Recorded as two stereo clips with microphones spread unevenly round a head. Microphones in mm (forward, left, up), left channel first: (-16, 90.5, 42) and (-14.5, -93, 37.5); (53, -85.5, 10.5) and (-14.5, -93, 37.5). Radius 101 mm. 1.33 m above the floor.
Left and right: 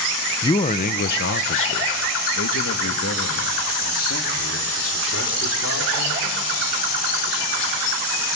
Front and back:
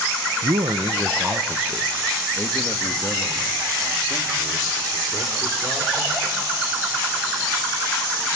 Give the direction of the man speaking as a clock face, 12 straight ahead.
7 o'clock.